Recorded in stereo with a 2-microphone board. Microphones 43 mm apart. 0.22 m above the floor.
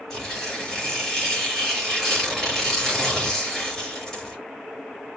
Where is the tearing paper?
10° left (ahead or behind), 4.5 m.